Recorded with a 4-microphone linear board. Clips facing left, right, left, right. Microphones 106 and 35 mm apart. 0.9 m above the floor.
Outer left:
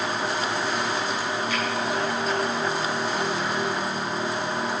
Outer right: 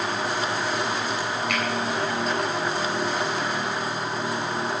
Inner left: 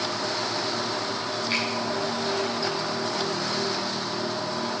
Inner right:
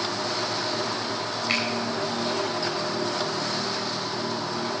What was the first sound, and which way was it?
A finger snap, 75° right (ahead or behind).